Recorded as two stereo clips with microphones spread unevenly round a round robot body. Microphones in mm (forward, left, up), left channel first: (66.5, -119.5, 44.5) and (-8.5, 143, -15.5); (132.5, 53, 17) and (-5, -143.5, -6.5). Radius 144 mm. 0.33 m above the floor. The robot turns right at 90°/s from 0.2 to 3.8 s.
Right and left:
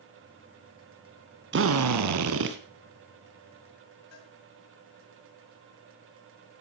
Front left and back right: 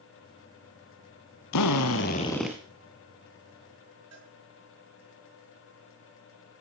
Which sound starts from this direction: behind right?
A cowbell, at 4.1 s.